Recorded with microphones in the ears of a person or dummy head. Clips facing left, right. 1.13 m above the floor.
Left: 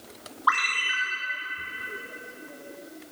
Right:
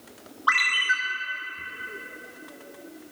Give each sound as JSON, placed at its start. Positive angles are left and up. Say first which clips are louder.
{"t": 0.5, "sound": "a ringtone", "louder": "left 1 dB", "side_deg": -25, "distance_m": 1.4}